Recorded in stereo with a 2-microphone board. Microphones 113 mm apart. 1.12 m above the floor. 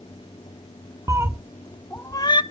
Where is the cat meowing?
30° right (ahead or behind), 0.8 m; by 2.4 s 45° left (ahead or behind), 0.8 m.